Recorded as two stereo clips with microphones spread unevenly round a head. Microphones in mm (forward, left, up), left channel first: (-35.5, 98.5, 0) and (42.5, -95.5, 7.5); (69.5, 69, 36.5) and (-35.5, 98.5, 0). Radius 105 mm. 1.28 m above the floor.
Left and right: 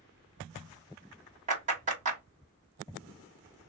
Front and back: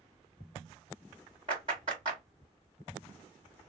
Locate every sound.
1.5 s a clap: 125° right, 1.9 m